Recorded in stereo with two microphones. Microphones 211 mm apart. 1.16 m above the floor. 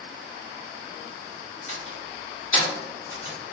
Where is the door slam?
75° left (ahead or behind), 1.9 m.